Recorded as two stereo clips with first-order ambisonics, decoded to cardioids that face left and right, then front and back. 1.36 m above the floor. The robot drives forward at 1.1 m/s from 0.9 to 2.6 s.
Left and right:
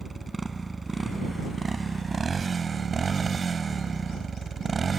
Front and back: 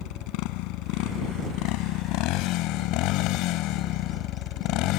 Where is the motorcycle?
10° right; by 5.0 s 20° right.